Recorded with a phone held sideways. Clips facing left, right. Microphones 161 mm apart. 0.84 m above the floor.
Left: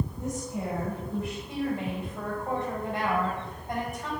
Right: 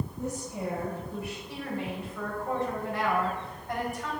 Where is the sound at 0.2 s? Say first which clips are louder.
Left 1 dB; 5° right (ahead or behind), 3.5 m.